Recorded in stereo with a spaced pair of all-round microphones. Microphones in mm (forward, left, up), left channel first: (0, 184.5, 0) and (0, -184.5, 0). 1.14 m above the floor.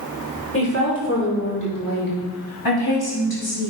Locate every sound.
0.5 s a woman speaking: 35° left (ahead or behind), 4 m; by 3.7 s 60° left (ahead or behind), 3 m